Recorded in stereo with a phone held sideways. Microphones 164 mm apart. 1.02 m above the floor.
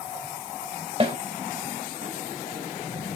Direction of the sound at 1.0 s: 35° right (ahead or behind).